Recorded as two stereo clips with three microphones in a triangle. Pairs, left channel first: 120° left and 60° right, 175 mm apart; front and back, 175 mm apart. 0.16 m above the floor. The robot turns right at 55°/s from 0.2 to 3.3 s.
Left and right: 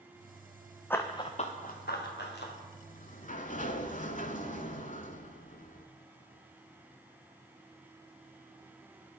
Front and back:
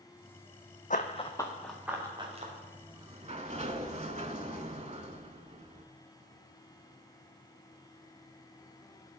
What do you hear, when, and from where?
0.9 s running footsteps: 40° left, 0.6 m; by 2.5 s 135° left, 2 m
2.8 s a sliding door: 115° left, 0.6 m; by 5.9 s 140° left, 0.6 m